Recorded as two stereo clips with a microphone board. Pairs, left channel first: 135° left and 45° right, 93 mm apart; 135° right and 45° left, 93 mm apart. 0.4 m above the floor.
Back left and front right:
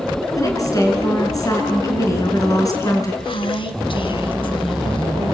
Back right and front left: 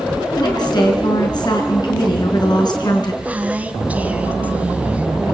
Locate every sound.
0.4 s a woman speaking: 175° right, 5.5 m
3.2 s a woman speaking: 120° left, 3 m